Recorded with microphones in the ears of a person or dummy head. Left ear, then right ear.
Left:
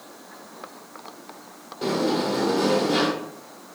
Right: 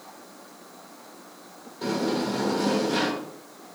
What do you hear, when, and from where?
1.8 s a sliding door: 5° left (ahead or behind), 1.2 m